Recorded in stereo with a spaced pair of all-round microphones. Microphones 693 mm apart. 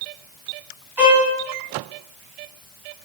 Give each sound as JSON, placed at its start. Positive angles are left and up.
{"t": 1.0, "sound": "a violin", "side_deg": -80, "distance_m": 9.5}